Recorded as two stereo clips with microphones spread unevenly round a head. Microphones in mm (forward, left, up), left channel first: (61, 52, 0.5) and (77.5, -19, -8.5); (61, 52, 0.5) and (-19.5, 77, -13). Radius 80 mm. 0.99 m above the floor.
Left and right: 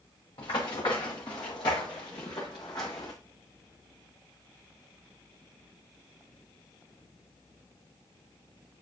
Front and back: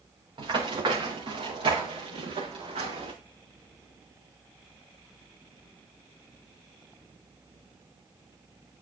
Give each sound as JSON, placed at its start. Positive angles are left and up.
{"t": 0.4, "sound": "running footsteps", "azimuth_deg": 140, "distance_m": 4.5}